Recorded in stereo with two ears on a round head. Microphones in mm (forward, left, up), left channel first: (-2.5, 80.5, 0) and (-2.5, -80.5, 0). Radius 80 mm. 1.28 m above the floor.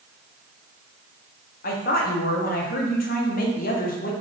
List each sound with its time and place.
1.6 s a woman speaking: 50° left (ahead or behind), 0.7 m